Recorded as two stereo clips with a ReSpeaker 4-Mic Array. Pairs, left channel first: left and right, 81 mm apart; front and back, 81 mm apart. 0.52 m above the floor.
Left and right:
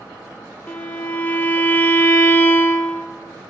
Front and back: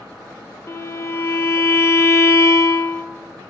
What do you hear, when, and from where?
0.7 s a violin: 30° left, 0.7 m